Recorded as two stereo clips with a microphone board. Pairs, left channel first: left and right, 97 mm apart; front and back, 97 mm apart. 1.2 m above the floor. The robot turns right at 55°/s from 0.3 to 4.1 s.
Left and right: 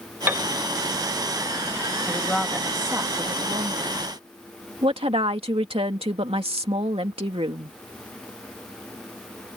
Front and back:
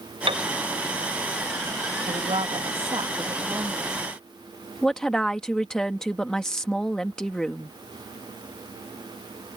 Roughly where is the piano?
Behind.